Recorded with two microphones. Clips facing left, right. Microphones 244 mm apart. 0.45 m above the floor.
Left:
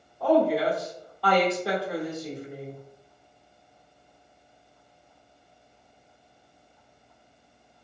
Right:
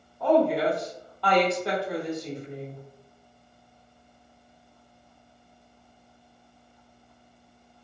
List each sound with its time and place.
0.2 s a woman speaking: 5° left (ahead or behind), 0.8 m